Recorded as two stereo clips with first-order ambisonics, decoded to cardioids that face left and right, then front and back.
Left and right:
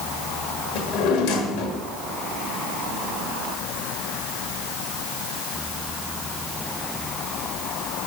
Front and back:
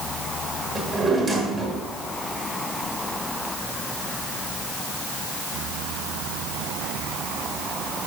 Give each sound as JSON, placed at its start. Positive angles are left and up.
{"t": 0.8, "sound": "a drawer", "azimuth_deg": 110, "distance_m": 1.5}